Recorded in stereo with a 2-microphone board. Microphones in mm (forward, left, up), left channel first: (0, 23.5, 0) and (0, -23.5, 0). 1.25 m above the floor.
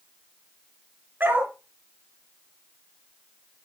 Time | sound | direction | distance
1.2 | a dog barking | 50° right (ahead or behind) | 2.5 m